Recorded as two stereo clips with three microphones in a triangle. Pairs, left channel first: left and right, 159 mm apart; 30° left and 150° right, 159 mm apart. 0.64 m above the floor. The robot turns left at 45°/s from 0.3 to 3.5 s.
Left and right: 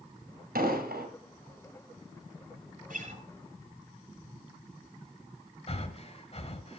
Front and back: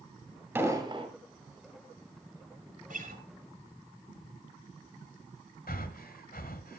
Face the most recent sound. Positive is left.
turn(degrees=45)